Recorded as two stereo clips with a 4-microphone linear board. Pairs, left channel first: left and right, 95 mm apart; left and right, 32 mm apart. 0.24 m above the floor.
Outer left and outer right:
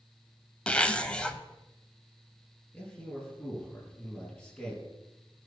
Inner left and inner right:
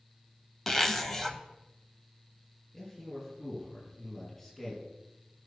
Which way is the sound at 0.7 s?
10° left (ahead or behind).